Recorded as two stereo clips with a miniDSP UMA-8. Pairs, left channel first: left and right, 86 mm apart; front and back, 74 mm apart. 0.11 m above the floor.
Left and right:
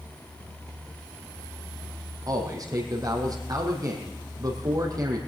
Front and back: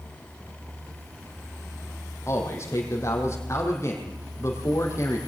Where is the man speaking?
50° right, 4 m.